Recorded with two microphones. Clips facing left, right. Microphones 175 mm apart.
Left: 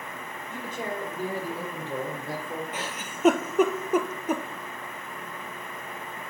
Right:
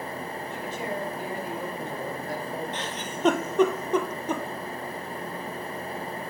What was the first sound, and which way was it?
A man speaking, 45° left (ahead or behind).